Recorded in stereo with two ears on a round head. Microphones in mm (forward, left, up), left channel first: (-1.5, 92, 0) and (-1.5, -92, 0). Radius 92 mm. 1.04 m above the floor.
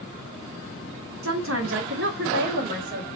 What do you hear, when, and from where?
1.2 s a woman speaking: 75° right (ahead or behind), 1.3 m; by 3.1 s 40° right (ahead or behind), 1.6 m